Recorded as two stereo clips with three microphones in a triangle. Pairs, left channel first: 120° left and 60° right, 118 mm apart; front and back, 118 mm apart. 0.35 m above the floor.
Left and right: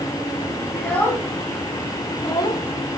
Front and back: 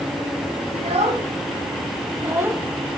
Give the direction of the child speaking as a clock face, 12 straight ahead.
5 o'clock.